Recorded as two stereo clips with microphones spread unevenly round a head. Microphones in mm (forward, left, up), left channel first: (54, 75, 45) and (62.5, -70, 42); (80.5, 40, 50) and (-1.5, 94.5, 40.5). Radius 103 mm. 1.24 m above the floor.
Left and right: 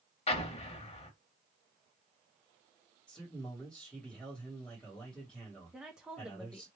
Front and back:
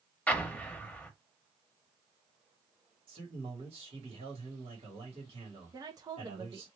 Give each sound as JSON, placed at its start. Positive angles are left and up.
{"t": 0.3, "sound": "an explosion", "azimuth_deg": 45, "distance_m": 0.8}
{"t": 3.1, "sound": "a man speaking", "azimuth_deg": 180, "distance_m": 1.7}
{"t": 5.7, "sound": "a woman speaking", "azimuth_deg": -170, "distance_m": 0.6}